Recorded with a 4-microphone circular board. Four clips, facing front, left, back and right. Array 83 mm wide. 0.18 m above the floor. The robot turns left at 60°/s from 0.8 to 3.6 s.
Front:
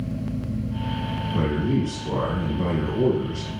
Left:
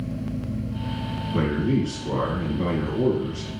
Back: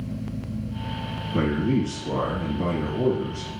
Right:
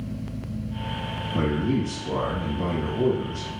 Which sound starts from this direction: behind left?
A man speaking, at 1.3 s.